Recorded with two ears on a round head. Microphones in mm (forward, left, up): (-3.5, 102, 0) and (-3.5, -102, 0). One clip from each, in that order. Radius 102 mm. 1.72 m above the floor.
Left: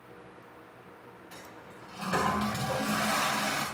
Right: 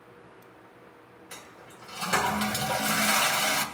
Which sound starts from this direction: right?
A toilet flushing, at 1.3 s.